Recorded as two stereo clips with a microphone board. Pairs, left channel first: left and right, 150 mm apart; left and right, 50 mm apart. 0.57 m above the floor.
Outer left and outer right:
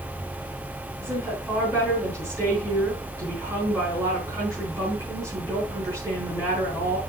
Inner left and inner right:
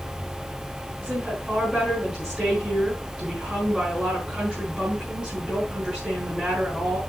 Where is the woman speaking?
20° right (ahead or behind), 5 m.